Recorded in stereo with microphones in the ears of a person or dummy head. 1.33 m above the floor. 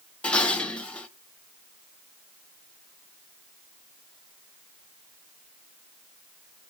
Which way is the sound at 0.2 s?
5° left (ahead or behind).